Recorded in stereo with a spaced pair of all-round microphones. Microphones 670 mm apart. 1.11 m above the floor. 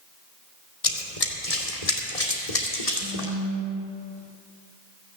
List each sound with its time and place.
0.8 s running footsteps: 60° left (ahead or behind), 2.0 m
3.0 s a phone buzzing: 60° right (ahead or behind), 3.5 m